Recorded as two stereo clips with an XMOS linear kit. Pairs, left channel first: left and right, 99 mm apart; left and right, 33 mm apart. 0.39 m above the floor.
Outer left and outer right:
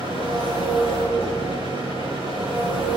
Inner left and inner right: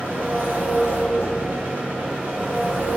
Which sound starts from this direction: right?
An engine running, at 0.0 s.